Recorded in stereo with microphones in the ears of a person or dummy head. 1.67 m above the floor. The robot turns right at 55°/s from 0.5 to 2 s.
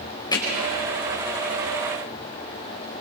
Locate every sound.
0.3 s hammering: 20° left (ahead or behind), 5 m